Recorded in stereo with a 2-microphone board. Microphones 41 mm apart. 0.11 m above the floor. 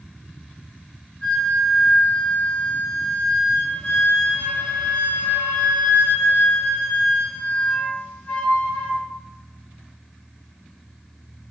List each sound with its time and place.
1.2 s a flute: 35° left (ahead or behind), 1.3 m